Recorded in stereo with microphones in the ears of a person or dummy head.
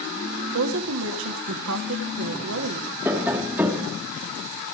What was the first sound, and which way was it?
A woman speaking, 80° right.